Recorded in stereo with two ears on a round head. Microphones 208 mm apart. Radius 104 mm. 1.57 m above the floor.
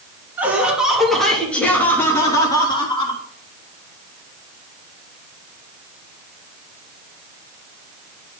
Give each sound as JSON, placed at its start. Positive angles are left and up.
{"t": 0.4, "sound": "laughter", "side_deg": -10, "distance_m": 3.0}